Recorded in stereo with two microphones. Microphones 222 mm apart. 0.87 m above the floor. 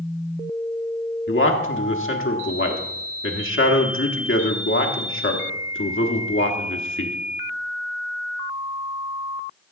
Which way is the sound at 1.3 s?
65° left (ahead or behind).